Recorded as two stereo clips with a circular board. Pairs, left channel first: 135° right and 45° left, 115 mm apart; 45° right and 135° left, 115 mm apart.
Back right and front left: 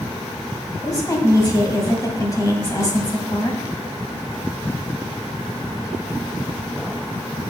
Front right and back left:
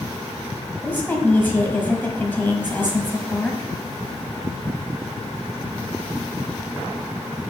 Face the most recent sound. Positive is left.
turn(degrees=-105)